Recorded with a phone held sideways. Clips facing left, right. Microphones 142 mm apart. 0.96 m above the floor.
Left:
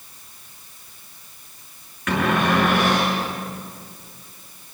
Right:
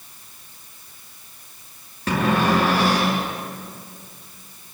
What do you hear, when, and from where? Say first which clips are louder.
2.1 s a cupboard door: right 1 dB; 30° right (ahead or behind), 7.5 m